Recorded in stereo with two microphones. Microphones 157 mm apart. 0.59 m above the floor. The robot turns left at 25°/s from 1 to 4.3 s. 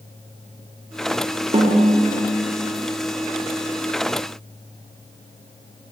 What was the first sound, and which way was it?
A snare drum, 40° right (ahead or behind).